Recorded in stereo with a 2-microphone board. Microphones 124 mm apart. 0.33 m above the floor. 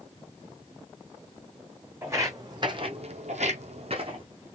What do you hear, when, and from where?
2.0 s footsteps: 20° right (ahead or behind), 1.2 m; by 4.2 s 45° right (ahead or behind), 1.0 m